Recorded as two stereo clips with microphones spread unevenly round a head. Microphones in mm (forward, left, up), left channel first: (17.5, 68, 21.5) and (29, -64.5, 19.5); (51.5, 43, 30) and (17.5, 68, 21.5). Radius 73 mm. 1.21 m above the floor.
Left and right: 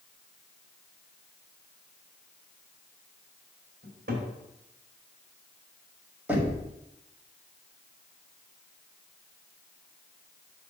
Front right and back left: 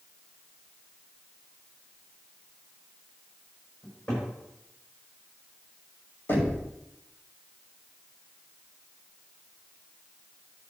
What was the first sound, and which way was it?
A cupboard door, 120° right.